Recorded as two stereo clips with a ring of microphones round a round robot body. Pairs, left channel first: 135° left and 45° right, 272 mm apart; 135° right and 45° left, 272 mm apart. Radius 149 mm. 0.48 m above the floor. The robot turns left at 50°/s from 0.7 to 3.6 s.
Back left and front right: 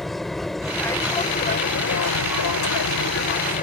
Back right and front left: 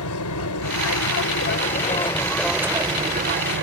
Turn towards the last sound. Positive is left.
turn(degrees=80)